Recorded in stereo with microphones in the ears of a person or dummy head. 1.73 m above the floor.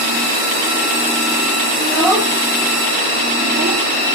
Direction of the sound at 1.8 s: 15° left (ahead or behind).